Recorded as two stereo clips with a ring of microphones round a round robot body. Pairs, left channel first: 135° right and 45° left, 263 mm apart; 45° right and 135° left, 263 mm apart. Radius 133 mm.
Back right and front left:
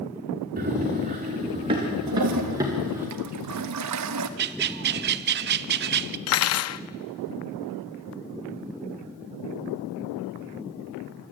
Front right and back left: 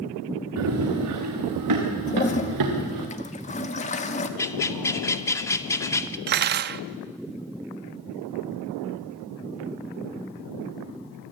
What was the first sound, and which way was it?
Running footsteps, 105° left.